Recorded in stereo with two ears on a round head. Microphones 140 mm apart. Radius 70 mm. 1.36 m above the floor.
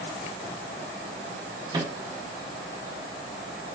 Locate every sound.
1.7 s a microwave: 25° right (ahead or behind), 1.0 m